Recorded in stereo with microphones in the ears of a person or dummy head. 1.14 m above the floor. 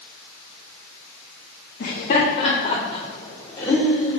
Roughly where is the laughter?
Left.